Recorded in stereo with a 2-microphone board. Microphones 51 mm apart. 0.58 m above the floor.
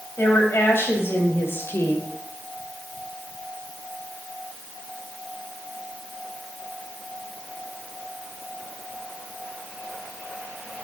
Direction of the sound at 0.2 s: 55° left (ahead or behind).